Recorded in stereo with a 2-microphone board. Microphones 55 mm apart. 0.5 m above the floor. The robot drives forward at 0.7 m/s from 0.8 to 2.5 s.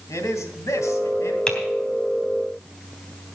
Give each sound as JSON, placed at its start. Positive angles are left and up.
{"t": 0.1, "sound": "a man speaking", "side_deg": 65, "distance_m": 3.0}
{"t": 1.5, "sound": "typing on a keyboard", "side_deg": 15, "distance_m": 3.0}